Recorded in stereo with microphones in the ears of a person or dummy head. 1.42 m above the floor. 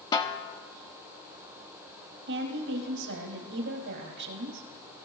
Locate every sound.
0.1 s a snare drum: 25° left (ahead or behind), 1.3 m
2.3 s a woman speaking: 65° right (ahead or behind), 2.5 m